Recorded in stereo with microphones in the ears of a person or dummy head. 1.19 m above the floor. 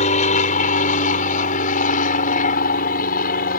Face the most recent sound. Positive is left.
turn(degrees=50)  # may be behind; listen again after turning